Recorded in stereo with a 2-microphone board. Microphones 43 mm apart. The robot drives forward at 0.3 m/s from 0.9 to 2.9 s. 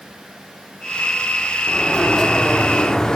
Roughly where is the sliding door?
Centre.